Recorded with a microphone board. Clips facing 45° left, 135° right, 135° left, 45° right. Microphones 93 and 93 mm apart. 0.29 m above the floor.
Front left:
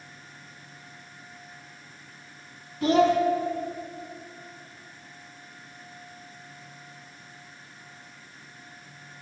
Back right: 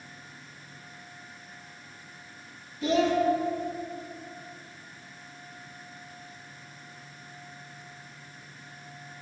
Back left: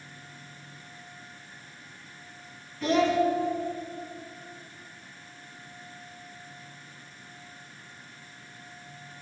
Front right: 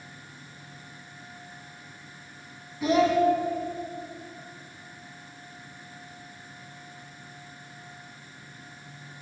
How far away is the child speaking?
About 1.2 m.